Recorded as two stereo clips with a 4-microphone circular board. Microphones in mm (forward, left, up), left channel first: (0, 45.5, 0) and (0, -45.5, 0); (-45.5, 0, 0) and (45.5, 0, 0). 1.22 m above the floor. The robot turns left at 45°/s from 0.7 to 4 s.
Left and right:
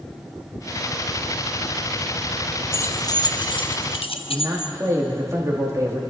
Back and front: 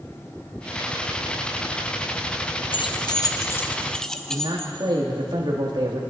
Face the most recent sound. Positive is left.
turn(degrees=-35)